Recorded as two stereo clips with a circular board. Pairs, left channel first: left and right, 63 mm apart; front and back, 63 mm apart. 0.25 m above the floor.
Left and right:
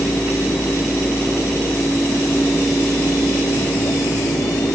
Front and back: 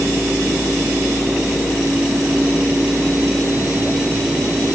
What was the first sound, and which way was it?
Only background noise.